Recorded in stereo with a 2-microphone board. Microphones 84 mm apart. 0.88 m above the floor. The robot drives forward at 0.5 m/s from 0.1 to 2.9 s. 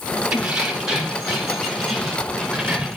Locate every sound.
0.3 s keys jangling: 10° right (ahead or behind), 1.6 m; by 3.0 s 5° right (ahead or behind), 3 m